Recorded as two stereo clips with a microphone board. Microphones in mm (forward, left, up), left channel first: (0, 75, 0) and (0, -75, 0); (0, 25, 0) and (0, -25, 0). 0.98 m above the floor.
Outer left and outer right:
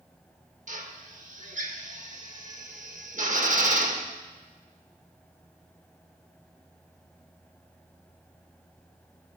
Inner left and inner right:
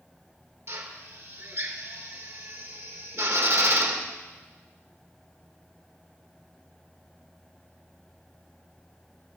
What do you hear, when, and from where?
0.7 s a drill: 60° right (ahead or behind), 1.2 m